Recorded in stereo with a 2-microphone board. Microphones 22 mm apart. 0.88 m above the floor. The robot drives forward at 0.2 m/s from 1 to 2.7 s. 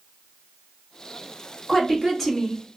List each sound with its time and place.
1.7 s a woman speaking: 5° left (ahead or behind), 1.2 m